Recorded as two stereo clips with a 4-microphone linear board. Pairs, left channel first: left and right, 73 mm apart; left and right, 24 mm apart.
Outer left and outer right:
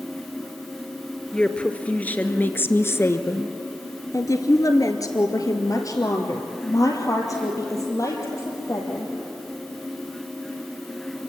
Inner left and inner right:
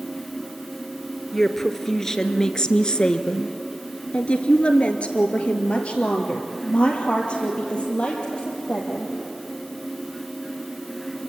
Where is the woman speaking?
10° left (ahead or behind), 1.8 m; by 9.1 s 40° left (ahead or behind), 3.5 m.